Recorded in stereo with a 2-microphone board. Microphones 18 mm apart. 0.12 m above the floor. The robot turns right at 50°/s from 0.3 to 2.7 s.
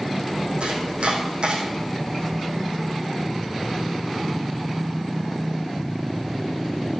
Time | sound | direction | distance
0.6 | chopping | 70° right (ahead or behind) | 4.5 m